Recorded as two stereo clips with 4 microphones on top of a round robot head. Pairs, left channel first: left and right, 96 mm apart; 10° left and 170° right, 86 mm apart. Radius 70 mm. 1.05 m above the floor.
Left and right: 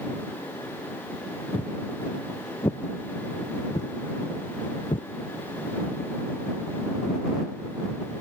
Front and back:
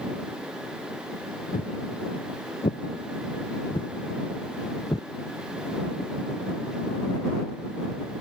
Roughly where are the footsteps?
Ahead.